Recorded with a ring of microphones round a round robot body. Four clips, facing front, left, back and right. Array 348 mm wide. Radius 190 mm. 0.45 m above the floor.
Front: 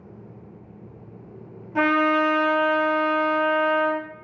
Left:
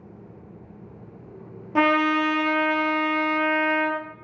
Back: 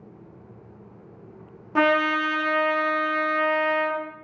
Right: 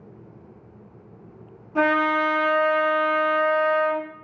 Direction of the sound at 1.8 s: 115° left.